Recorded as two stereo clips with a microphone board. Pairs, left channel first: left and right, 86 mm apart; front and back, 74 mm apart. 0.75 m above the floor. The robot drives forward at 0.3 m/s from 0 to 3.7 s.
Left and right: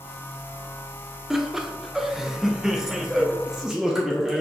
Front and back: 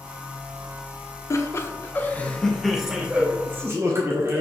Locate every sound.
1.3 s laughter: 5° right, 0.7 m; by 4.4 s 170° right, 0.6 m